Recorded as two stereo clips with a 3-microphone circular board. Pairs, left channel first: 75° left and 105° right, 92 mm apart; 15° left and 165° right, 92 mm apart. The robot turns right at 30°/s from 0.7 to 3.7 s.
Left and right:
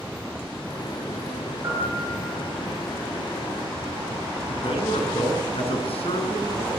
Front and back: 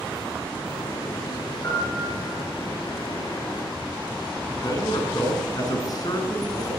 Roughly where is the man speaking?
Ahead left.